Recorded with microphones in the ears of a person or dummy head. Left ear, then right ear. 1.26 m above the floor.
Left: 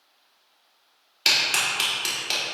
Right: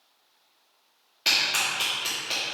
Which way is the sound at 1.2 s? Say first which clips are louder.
Left 2 dB; 30° left (ahead or behind).